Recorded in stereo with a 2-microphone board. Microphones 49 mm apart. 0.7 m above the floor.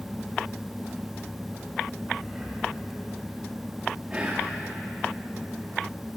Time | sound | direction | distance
2.2 | breathing | 5° right (ahead or behind) | 3.5 m
4.1 | whispering | 25° right (ahead or behind) | 1.1 m